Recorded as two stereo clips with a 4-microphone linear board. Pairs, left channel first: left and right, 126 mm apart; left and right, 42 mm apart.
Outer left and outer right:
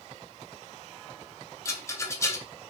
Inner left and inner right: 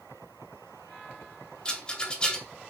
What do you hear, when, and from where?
1.6 s a rattle: 20° left (ahead or behind), 0.5 m